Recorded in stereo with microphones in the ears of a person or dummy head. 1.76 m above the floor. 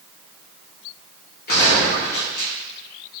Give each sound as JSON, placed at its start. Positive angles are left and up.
{"t": 1.5, "sound": "a gunshot", "side_deg": 60, "distance_m": 1.0}